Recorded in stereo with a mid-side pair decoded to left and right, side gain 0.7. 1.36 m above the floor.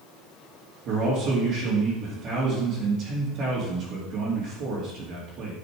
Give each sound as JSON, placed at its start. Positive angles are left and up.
{"t": 0.8, "sound": "a man speaking", "azimuth_deg": -55, "distance_m": 2.5}